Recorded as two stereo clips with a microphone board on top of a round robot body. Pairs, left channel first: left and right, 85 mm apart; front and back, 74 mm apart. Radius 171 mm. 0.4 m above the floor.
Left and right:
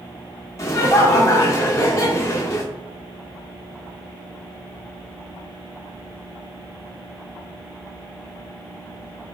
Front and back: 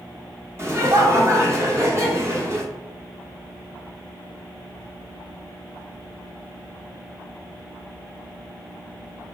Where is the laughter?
140° left, 1.4 m.